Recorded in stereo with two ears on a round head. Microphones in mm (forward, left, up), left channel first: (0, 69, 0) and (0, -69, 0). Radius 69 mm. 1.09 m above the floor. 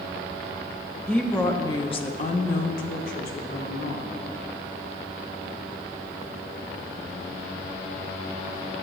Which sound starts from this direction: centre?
A woman speaking, at 1.1 s.